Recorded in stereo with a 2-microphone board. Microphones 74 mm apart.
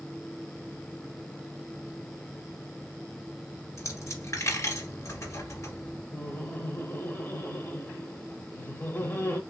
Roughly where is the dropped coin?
Left.